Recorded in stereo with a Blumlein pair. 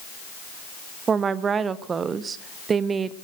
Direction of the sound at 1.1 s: 20° right.